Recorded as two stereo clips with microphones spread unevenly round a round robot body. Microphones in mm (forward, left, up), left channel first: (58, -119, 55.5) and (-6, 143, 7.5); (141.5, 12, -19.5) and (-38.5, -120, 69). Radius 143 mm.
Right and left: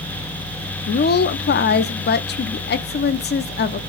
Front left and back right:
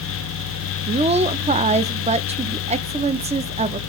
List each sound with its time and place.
0.9 s a woman speaking: 65° right, 0.7 m